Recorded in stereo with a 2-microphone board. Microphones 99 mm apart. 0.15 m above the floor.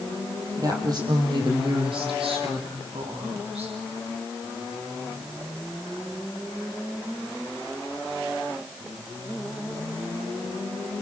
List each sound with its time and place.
0.6 s a woman speaking: 35° right (ahead or behind), 4.5 m; by 3.7 s 80° right, 6.5 m